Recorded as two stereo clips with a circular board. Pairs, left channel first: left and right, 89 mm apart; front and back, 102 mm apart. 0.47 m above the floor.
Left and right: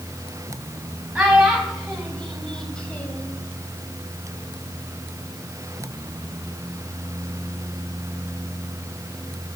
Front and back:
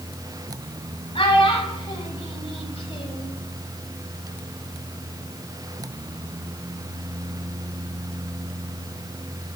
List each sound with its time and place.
1.1 s a child speaking: 10° right, 2.5 m; by 3.3 s 25° left, 1.9 m